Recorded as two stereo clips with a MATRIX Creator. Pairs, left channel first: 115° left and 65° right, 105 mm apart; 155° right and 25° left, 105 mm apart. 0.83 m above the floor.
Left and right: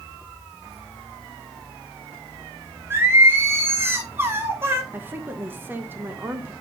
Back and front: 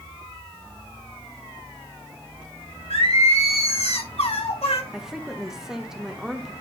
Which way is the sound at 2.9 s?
135° right.